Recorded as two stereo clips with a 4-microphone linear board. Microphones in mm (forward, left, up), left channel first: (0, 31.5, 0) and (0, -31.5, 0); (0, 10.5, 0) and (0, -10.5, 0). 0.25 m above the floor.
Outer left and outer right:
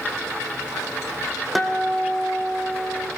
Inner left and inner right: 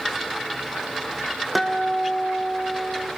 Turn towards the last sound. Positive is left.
turn(degrees=0)  # may be behind; listen again after turning